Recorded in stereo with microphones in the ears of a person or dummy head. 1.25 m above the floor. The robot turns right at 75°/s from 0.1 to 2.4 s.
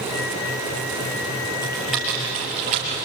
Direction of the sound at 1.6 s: 20° left (ahead or behind).